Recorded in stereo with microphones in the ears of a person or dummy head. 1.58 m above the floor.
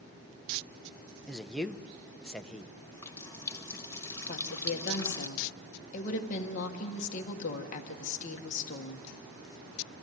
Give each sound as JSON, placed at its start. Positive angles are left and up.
{"t": 1.3, "sound": "a man speaking", "side_deg": 5, "distance_m": 0.6}
{"t": 2.8, "sound": "a running tap", "side_deg": 15, "distance_m": 1.1}
{"t": 4.3, "sound": "a woman speaking", "side_deg": 40, "distance_m": 1.6}